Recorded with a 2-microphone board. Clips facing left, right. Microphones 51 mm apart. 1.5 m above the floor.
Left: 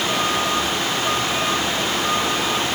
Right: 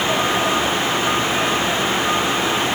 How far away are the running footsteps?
No running footsteps in this recording.